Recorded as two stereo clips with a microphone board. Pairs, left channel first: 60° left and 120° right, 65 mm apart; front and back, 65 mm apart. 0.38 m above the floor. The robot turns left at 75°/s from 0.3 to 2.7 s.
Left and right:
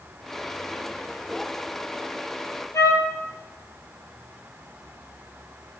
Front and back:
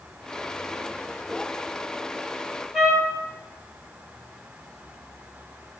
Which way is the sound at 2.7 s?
100° left.